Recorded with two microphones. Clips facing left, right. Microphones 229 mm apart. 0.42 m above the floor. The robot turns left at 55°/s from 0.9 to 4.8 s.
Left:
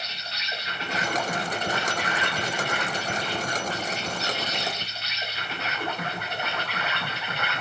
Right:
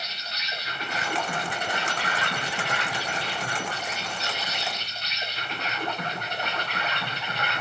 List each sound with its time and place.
0.0 s an insect: 30° left, 0.9 m; by 7.6 s 175° left, 0.9 m